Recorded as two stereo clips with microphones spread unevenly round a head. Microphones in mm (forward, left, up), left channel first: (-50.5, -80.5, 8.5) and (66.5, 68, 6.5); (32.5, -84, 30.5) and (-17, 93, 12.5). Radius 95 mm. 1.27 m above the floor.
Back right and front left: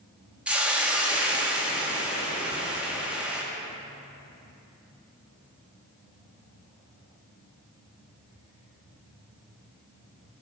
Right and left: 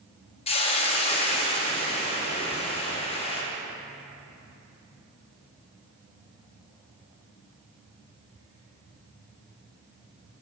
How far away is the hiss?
About 0.8 m.